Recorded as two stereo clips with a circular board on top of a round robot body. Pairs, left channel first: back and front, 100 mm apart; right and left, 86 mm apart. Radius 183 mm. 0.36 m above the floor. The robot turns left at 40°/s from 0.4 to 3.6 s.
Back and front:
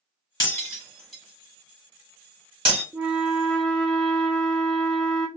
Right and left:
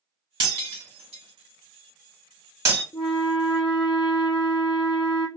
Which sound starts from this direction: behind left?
Breaking glass, at 0.4 s.